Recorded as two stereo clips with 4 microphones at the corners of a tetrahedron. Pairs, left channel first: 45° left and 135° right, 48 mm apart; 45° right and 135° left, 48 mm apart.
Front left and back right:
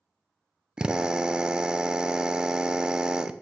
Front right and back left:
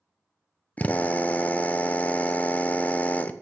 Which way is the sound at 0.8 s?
75° right.